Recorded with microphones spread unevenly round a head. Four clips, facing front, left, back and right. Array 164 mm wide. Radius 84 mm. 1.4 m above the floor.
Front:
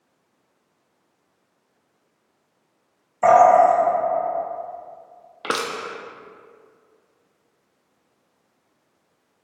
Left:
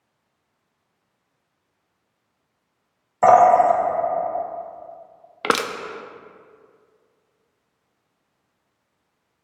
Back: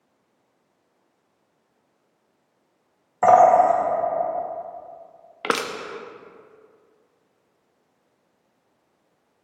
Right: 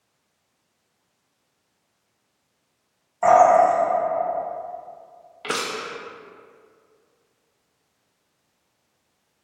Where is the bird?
80° left, 2.0 m.